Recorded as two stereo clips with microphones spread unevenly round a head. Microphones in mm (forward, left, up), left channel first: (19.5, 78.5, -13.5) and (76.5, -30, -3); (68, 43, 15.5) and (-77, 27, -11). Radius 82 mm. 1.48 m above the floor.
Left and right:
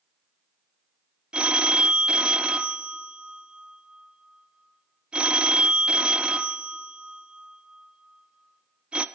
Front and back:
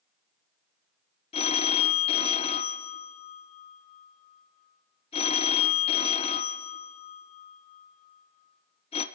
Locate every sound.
1.3 s a phone ringing: 10° left, 0.5 m